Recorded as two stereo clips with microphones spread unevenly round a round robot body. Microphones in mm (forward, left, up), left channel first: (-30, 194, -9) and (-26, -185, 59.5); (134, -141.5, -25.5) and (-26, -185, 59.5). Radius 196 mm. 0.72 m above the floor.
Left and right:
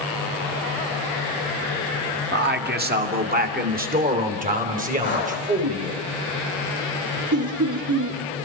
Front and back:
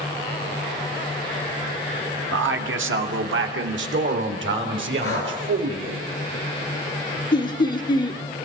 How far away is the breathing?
About 8.5 m.